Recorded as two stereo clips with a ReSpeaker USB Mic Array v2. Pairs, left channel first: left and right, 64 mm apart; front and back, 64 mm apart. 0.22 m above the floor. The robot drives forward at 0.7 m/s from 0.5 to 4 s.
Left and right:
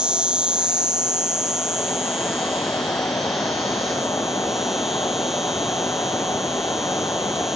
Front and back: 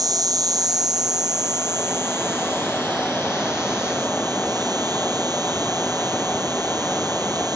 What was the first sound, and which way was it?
An insect, 165° right.